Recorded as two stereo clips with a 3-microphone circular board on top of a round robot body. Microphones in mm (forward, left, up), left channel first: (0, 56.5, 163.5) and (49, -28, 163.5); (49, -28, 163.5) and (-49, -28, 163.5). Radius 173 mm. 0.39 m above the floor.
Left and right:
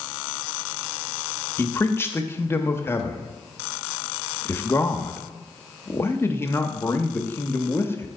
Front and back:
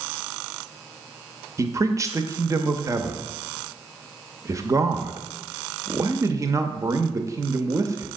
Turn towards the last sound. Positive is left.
turn(degrees=165)